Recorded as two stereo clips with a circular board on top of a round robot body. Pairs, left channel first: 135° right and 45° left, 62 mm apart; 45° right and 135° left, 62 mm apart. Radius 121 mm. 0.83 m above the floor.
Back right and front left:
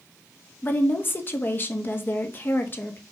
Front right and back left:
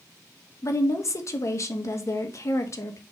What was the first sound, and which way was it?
A woman speaking, 80° right.